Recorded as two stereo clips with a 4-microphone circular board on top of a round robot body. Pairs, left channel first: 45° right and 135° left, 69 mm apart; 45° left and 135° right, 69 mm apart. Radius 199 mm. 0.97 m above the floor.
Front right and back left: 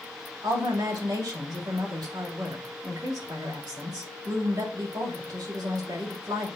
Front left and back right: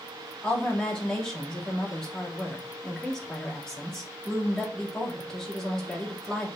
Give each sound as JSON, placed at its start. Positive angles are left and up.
{"t": 0.4, "sound": "a woman speaking", "azimuth_deg": 125, "distance_m": 3.5}